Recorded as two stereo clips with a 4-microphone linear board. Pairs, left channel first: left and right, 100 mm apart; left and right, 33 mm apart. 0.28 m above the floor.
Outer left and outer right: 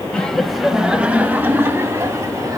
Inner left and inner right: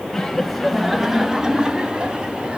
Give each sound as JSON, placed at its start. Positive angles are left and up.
{"t": 0.1, "sound": "laughter", "side_deg": 10, "distance_m": 1.1}